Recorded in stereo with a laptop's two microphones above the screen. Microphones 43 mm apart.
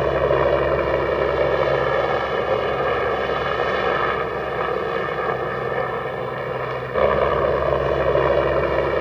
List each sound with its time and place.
0.0 s a helicopter: 5° left (ahead or behind)